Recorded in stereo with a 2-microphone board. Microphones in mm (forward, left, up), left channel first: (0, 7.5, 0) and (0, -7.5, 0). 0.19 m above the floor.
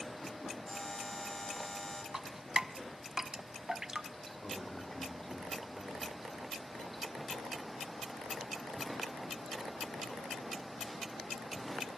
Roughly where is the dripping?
Right.